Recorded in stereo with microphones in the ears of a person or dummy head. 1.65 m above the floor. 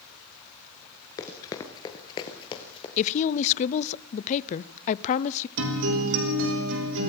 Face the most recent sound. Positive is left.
turn(degrees=-70)  # may be behind; listen again after turning